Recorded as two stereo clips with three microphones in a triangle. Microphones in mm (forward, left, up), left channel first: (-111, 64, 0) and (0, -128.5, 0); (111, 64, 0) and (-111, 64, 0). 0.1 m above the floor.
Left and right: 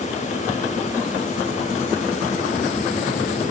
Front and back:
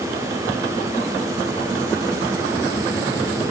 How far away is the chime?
I don't hear a chime.